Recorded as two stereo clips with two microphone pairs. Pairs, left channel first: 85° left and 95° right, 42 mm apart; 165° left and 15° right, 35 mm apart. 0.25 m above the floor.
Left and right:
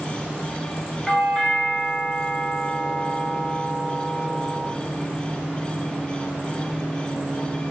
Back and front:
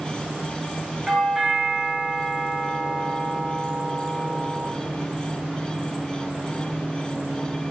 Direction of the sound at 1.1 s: 35° left.